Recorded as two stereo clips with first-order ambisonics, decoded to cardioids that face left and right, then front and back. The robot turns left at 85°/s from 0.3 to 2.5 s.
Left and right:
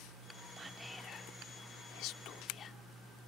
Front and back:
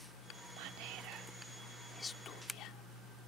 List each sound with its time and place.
0.6 s whispering: 160° right; by 2.8 s 35° left